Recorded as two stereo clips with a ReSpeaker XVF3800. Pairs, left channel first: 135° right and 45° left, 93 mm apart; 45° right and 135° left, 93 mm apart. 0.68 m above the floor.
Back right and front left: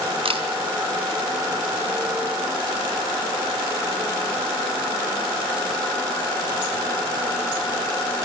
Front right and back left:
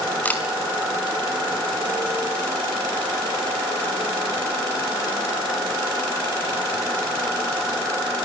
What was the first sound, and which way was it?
A camera shutter, 30° left.